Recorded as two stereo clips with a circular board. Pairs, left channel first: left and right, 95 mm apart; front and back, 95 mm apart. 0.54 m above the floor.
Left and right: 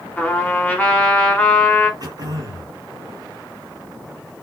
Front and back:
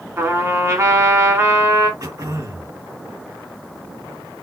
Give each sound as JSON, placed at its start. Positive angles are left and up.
{"t": 0.2, "sound": "a trumpet", "azimuth_deg": 155, "distance_m": 1.3}
{"t": 2.0, "sound": "throat clearing", "azimuth_deg": -130, "distance_m": 2.5}